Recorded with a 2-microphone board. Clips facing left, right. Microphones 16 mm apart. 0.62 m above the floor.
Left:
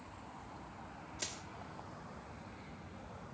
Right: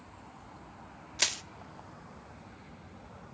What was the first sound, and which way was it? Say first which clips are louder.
Crushing: right 14 dB; 50° right (ahead or behind).